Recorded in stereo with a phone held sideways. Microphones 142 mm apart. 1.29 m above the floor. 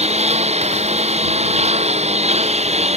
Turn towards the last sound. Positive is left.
turn(degrees=-50)  # may be behind; listen again after turning